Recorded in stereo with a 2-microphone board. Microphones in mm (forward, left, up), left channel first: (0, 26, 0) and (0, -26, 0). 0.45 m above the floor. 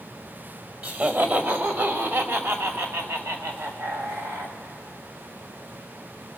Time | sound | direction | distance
0.8 | laughter | 35° right (ahead or behind) | 2 m